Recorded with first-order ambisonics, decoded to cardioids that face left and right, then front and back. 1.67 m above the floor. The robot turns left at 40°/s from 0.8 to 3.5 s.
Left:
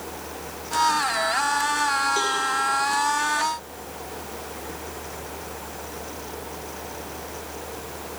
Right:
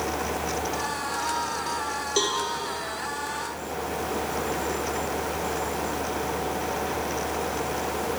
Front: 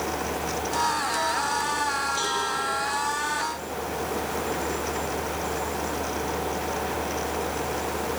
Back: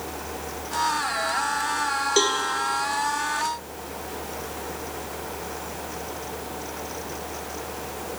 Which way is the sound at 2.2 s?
160° right.